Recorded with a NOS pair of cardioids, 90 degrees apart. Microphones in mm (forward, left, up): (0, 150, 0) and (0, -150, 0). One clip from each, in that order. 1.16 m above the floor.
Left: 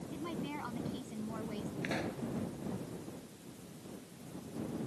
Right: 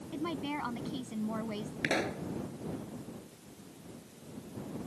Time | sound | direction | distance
0.1 | a woman speaking | 50° right | ?
1.8 | a pop | 55° right | ?